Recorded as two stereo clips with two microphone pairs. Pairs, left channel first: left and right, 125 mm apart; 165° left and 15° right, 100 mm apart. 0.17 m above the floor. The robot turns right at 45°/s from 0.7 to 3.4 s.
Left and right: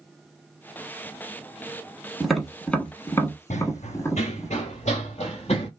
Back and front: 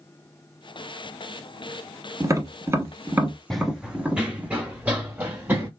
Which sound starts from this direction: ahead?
Tapping, at 2.2 s.